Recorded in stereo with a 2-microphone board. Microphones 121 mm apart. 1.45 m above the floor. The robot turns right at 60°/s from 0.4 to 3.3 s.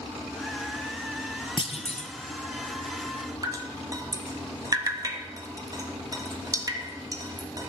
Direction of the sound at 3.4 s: 30° right (ahead or behind).